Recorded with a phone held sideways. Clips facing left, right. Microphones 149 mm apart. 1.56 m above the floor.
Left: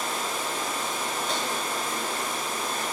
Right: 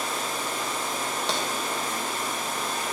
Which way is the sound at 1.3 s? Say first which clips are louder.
Right 2 dB; 80° right.